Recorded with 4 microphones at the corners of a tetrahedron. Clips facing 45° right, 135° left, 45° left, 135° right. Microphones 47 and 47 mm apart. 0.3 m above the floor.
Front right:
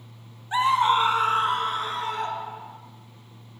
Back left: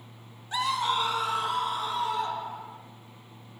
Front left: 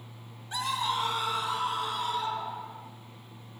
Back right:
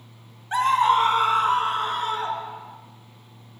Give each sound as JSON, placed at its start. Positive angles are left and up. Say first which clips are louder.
{"t": 0.5, "sound": "a scream", "louder": "front right 7 dB, back right 12 dB", "azimuth_deg": -100, "distance_m": 1.5}